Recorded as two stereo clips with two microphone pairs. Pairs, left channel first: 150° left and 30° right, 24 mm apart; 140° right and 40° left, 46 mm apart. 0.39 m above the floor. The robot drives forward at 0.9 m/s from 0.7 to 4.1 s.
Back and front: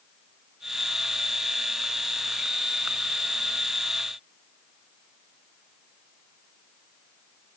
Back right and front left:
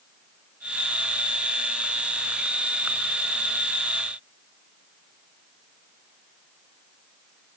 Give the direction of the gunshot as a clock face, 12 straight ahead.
No gunshot in this recording.